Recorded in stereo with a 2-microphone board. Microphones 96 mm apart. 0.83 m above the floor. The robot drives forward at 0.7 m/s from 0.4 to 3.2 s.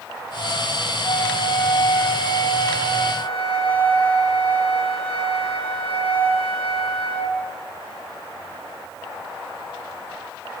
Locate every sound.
1.0 s a flute: 85° left, 4 m; by 7.3 s 70° left (ahead or behind), 4.5 m